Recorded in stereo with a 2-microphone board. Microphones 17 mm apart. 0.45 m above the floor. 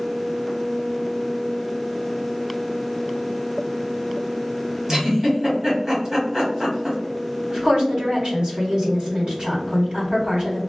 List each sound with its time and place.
4.9 s a giggle: 30° right (ahead or behind), 1.4 m
7.5 s a woman speaking: 55° right (ahead or behind), 1.9 m